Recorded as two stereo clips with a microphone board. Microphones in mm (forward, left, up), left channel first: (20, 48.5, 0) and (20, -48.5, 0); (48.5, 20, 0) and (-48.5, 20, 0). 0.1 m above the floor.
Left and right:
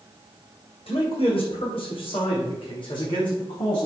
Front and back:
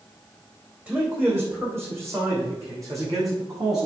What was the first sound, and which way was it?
A man speaking, 105° left.